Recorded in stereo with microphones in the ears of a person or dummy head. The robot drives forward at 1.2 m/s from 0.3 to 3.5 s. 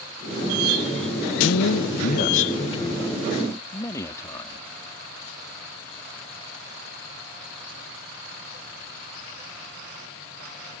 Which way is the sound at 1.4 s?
70° left (ahead or behind).